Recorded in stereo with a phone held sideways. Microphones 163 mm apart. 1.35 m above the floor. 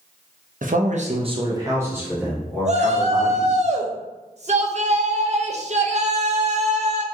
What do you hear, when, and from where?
0.6 s a man speaking: 55° right (ahead or behind), 0.7 m; by 3.6 s 5° left (ahead or behind), 2 m
2.6 s a shout: 45° right (ahead or behind), 0.6 m